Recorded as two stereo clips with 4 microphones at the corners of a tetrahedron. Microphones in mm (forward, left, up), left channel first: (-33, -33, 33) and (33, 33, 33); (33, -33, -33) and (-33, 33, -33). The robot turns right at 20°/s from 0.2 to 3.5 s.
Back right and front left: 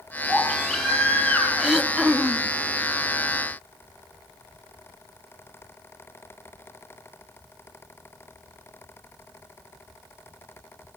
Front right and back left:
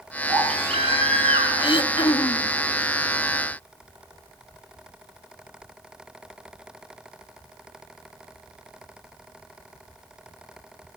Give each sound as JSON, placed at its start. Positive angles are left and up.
{"t": 0.3, "sound": "a baby crying", "azimuth_deg": 125, "distance_m": 7.0}
{"t": 1.6, "sound": "throat clearing", "azimuth_deg": -40, "distance_m": 1.3}